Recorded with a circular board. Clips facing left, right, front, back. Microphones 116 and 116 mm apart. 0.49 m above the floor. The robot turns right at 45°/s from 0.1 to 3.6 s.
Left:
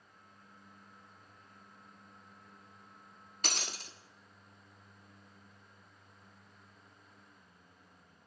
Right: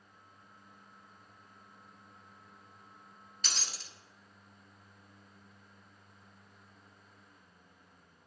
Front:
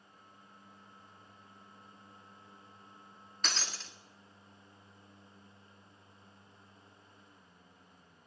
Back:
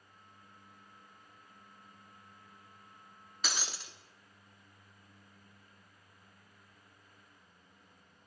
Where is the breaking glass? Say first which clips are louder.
Left 4 dB, even; 100° left, 0.7 m; by 3.9 s 105° left, 0.7 m.